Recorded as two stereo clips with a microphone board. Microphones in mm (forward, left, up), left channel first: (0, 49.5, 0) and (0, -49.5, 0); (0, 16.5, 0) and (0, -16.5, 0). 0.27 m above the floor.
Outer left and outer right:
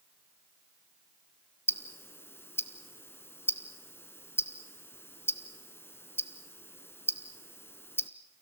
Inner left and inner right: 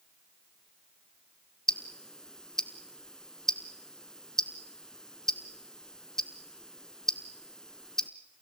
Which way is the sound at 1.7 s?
20° left (ahead or behind).